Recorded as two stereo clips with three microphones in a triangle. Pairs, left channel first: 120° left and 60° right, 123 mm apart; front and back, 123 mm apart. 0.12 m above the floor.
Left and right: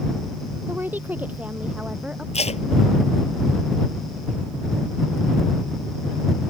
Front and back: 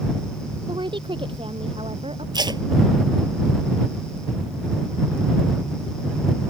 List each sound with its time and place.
0.7 s a woman speaking: 130° right; by 2.2 s 140° right
2.3 s tape being pulled: 130° left